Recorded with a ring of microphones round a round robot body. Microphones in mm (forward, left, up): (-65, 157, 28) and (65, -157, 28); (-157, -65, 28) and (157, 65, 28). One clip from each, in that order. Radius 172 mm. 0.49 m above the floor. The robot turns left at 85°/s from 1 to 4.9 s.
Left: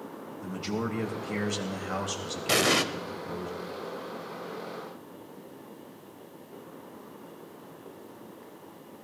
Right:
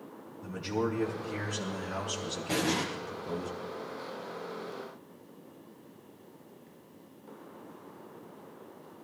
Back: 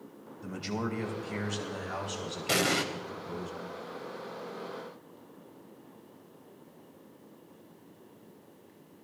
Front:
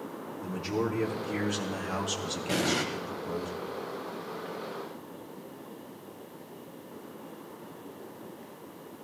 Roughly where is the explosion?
Behind left.